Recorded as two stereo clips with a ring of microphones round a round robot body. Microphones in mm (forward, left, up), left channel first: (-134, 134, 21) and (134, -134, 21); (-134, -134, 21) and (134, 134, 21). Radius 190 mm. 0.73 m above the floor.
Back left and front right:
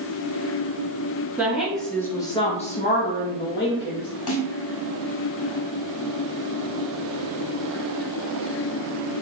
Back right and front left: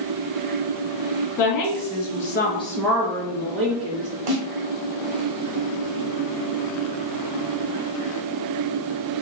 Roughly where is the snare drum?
Left.